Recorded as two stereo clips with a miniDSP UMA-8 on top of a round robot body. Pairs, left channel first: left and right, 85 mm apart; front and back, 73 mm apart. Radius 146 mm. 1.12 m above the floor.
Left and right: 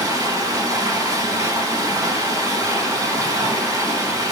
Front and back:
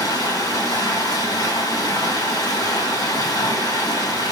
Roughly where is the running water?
Ahead right.